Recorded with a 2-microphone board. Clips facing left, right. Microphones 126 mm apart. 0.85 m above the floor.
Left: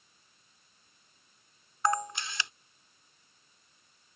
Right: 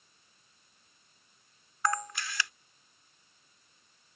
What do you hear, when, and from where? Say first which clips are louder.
1.9 s a camera shutter: left 3 dB; 25° left (ahead or behind)